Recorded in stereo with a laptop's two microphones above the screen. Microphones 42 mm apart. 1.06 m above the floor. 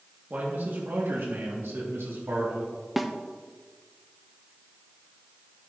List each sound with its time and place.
0.3 s a man speaking: 50° right (ahead or behind), 1.8 m; by 2.7 s 80° right, 2.5 m
3.0 s a snare drum: centre (ahead or behind), 0.6 m